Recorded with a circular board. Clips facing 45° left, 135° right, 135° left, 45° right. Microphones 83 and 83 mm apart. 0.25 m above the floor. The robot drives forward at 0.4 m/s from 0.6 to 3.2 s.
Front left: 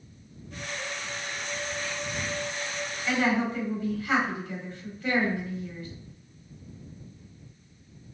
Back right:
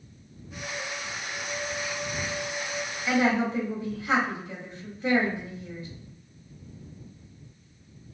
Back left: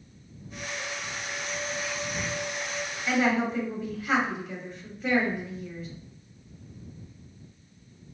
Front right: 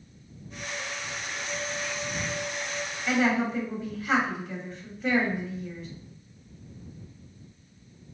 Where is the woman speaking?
130° right, 1.0 m; by 5.9 s 140° right, 1.0 m.